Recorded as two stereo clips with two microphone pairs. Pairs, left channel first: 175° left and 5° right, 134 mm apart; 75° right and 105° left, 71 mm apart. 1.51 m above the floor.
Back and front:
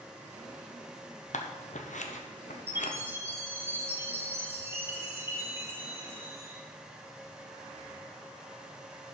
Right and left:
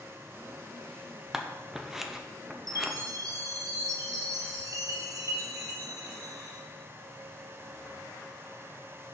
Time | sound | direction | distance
1.3 | scissors | 170° right | 0.8 m
2.7 | a chime | 70° left | 1.5 m